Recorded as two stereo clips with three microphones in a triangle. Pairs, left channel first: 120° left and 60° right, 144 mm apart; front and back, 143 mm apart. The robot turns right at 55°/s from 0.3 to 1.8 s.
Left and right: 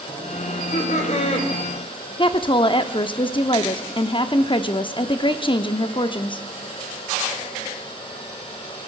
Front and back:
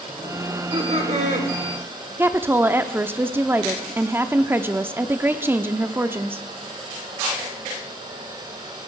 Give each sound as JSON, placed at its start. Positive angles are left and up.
{"t": 0.5, "sound": "laughter", "azimuth_deg": 115, "distance_m": 3.0}
{"t": 2.2, "sound": "a woman speaking", "azimuth_deg": 115, "distance_m": 0.7}